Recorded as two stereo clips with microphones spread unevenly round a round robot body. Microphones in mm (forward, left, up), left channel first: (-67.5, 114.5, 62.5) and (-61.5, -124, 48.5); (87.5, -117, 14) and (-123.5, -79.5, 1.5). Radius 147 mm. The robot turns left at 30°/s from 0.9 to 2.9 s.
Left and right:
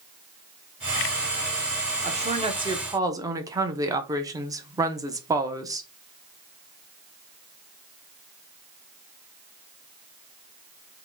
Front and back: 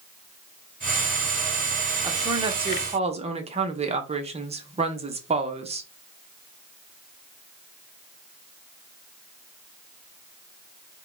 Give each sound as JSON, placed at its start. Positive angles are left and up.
{"t": 2.0, "sound": "a woman speaking", "azimuth_deg": -125, "distance_m": 0.9}